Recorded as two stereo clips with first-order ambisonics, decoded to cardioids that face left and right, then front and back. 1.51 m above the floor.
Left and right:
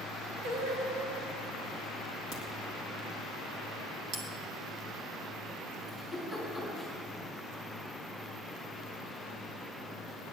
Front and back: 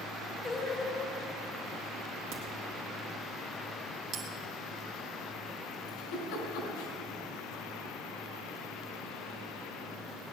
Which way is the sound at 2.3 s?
150° right.